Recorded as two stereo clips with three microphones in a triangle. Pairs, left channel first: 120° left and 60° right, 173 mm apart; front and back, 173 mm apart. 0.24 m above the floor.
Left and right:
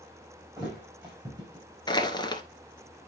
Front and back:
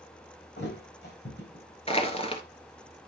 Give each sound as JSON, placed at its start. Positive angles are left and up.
{"t": 0.6, "sound": "a thud", "azimuth_deg": 5, "distance_m": 4.5}
{"t": 1.9, "sound": "crushing", "azimuth_deg": 55, "distance_m": 1.1}